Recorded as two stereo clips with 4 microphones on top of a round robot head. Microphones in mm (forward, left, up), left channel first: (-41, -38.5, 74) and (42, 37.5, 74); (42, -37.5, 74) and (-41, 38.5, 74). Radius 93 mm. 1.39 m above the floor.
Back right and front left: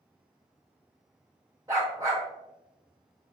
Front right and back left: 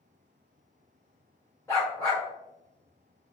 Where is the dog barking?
10° left, 0.8 m.